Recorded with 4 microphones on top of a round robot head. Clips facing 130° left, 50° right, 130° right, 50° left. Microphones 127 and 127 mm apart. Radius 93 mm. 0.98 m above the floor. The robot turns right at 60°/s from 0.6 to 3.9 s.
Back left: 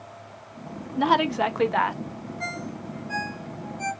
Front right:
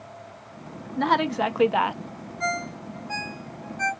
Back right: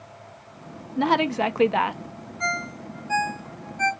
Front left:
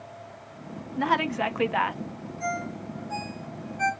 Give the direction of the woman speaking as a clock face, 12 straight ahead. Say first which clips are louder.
Back left 1 dB, back right 4 dB; 5 o'clock.